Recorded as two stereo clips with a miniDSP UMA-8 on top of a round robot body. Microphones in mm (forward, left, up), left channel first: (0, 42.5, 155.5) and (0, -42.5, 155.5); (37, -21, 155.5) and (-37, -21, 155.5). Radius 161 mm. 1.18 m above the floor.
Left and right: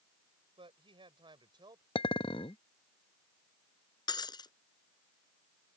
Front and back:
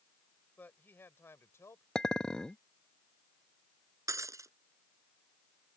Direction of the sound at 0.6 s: 70° right.